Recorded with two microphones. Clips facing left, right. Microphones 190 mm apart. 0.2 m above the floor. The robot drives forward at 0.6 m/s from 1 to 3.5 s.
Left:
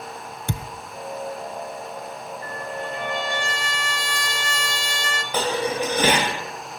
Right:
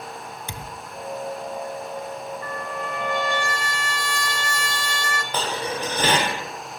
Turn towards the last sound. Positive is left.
turn(degrees=10)  # may be behind; listen again after turning